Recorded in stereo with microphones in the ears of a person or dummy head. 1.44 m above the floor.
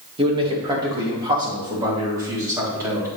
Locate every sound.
0.2 s a man speaking: 25° right (ahead or behind), 1.8 m; by 3.1 s 15° right (ahead or behind), 3.5 m